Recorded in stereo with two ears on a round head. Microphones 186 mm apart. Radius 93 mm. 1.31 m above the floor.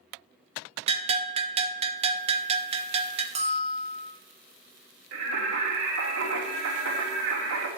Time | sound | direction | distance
0.9 | a bell | 30° right (ahead or behind) | 0.6 m
3.4 | a bell | 35° right (ahead or behind) | 1.0 m
5.1 | singing | 75° right (ahead or behind) | 2.5 m